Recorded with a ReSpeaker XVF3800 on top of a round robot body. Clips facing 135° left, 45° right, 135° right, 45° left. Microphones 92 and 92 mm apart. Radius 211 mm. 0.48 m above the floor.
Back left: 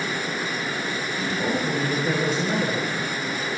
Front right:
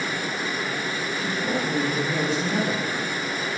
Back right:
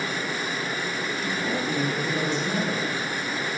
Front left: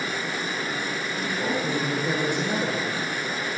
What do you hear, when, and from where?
1.2 s a woman speaking: 80° left, 9.5 m